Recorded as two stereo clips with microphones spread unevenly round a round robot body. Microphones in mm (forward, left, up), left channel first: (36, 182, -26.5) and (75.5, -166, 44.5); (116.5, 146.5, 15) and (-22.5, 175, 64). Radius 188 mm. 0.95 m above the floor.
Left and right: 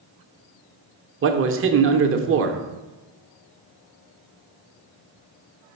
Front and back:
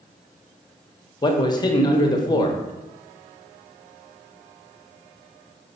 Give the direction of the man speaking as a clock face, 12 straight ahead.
1 o'clock.